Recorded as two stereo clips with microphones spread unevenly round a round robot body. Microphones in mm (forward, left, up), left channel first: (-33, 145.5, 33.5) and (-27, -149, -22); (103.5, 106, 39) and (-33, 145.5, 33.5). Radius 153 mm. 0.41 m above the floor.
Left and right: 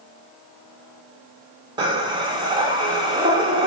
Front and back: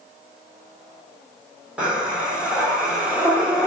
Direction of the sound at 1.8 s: 125° right.